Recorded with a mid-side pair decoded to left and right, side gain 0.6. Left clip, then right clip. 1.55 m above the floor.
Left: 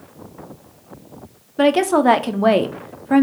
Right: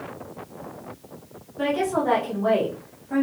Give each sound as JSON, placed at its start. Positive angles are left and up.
{"t": 1.6, "sound": "a woman speaking", "azimuth_deg": 60, "distance_m": 0.7}